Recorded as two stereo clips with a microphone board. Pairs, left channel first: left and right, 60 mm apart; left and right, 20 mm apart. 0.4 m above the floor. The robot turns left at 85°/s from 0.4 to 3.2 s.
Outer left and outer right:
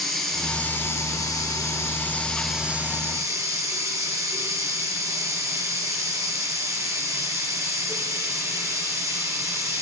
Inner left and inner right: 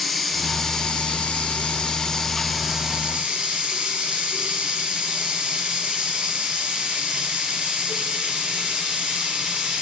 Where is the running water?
175° left, 5 m; by 9.8 s 65° right, 5 m.